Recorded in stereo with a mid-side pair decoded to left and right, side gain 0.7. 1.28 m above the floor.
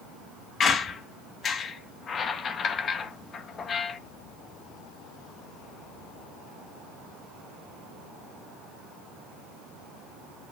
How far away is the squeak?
About 1.0 m.